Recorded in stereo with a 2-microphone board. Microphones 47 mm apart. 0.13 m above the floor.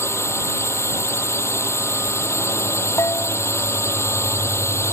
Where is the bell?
75° left (ahead or behind).